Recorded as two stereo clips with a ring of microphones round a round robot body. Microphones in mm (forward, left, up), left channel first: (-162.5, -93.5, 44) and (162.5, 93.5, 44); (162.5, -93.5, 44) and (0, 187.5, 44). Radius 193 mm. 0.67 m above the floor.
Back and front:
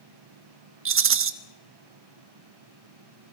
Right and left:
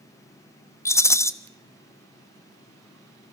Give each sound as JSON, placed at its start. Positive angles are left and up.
{"t": 0.8, "sound": "a rattle", "azimuth_deg": 15, "distance_m": 1.0}